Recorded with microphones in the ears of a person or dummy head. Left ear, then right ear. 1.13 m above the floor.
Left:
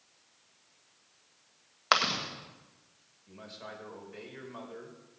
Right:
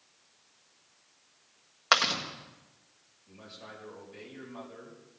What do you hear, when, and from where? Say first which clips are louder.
1.9 s chewing: right 2 dB; centre (ahead or behind), 1.6 m
3.3 s a man speaking: left 2 dB; 40° left (ahead or behind), 5 m